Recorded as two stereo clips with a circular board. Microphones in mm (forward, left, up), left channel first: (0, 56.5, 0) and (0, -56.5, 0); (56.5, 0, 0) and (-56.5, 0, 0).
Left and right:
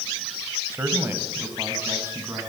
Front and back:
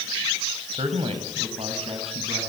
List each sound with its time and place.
0.7 s a man speaking: 160° right, 3.5 m